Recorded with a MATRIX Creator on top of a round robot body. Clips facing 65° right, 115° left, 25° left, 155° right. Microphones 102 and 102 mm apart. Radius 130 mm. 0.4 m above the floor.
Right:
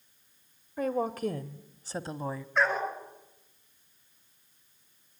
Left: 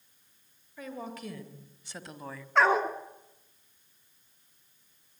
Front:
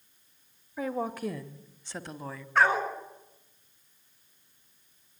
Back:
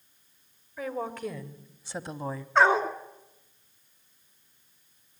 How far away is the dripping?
I don't hear dripping.